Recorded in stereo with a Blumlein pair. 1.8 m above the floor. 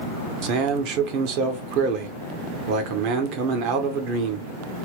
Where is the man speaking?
40° right, 1.1 m.